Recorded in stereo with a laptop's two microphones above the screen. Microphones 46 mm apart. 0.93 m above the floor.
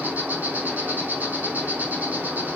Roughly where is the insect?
Right.